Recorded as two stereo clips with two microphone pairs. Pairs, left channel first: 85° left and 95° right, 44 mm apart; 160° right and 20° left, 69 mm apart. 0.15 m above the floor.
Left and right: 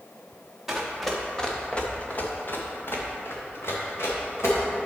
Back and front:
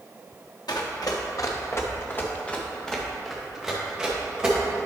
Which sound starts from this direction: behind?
Running footsteps, at 0.7 s.